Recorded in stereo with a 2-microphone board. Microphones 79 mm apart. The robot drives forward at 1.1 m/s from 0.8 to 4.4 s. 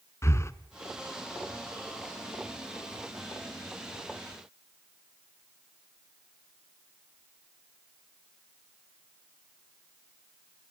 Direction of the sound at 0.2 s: 35° left (ahead or behind).